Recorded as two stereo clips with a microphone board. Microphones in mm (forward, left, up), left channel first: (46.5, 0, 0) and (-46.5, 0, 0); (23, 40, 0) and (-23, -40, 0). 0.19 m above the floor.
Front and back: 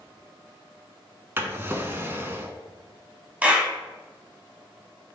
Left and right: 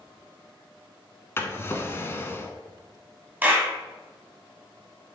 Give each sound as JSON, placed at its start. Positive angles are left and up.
{"t": 1.4, "sound": "a drawer", "azimuth_deg": 120, "distance_m": 0.5}
{"t": 3.4, "sound": "a clap", "azimuth_deg": -140, "distance_m": 0.8}